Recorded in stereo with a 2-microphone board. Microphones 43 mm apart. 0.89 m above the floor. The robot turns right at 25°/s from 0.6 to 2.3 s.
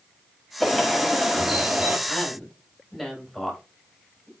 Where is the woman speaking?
10° right (ahead or behind), 5 m; by 4.3 s 5° right (ahead or behind), 5 m.